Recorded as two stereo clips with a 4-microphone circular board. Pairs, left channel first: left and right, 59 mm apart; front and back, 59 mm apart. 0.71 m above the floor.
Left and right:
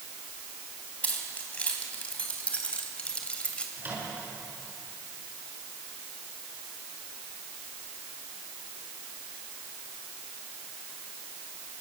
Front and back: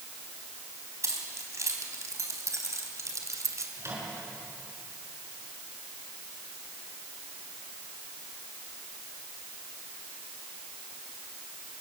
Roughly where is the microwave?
Behind right.